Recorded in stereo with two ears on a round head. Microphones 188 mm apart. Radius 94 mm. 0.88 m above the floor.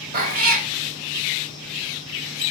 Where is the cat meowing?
45° right (ahead or behind), 0.8 m.